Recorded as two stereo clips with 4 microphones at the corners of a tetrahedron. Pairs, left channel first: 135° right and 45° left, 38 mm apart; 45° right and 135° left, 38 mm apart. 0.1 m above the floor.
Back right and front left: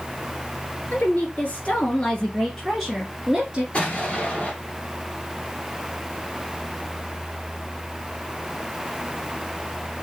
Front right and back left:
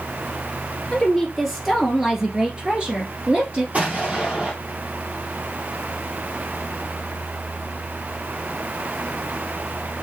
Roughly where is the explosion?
Behind.